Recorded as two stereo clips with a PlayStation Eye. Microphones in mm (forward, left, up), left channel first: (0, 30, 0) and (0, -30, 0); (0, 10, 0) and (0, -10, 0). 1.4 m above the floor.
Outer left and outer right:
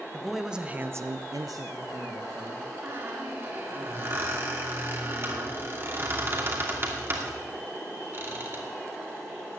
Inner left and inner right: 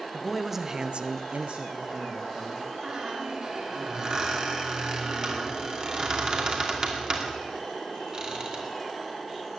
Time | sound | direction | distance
0.1 | a man speaking | centre (ahead or behind) | 1.4 m
2.8 | a squeak | 40° right (ahead or behind) | 2.5 m